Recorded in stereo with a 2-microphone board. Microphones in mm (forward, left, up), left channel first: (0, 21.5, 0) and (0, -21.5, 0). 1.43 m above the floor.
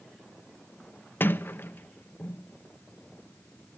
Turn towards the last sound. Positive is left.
turn(degrees=55)  # may be behind; listen again after turning